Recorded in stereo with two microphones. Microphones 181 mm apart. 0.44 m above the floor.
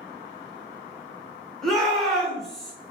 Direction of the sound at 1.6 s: Centre (ahead or behind).